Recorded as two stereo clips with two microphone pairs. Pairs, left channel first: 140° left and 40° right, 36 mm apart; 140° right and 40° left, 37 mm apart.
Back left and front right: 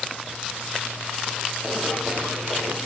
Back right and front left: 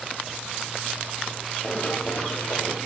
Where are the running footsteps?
90° right, 4.5 m.